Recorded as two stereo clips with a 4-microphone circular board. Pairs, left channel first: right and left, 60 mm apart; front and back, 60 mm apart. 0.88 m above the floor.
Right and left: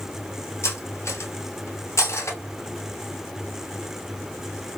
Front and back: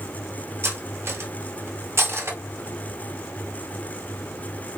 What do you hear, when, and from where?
0.6 s cutlery clinking: 130° right, 0.6 m